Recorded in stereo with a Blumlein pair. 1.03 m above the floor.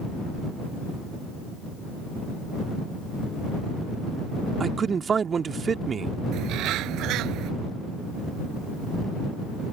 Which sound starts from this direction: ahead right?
A bird, at 6.3 s.